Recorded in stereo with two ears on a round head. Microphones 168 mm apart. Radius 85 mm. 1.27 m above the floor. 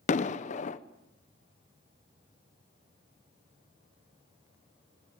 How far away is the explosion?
About 0.8 m.